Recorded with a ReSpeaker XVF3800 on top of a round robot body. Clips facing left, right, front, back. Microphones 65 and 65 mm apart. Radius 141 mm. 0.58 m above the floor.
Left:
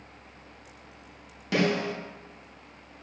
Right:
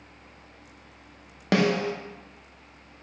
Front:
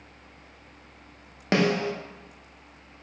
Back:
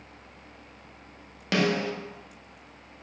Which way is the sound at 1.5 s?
60° right.